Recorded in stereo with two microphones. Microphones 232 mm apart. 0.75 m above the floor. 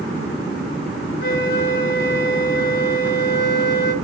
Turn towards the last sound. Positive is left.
turn(degrees=50)  # may be behind; listen again after turning